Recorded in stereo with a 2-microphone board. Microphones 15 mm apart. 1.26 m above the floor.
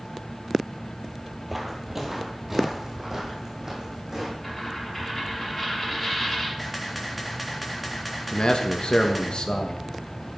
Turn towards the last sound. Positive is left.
turn(degrees=60)  # may be behind; listen again after turning